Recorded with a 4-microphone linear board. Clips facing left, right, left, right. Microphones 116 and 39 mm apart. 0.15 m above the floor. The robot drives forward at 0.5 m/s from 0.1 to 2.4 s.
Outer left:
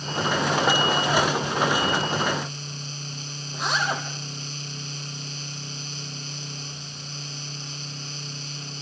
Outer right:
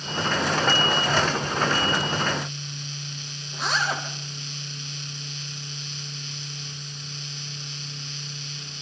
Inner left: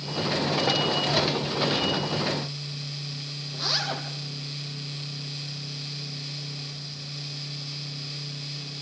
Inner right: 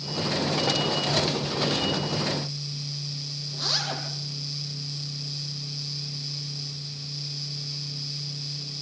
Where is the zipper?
Centre (ahead or behind), 4.5 m.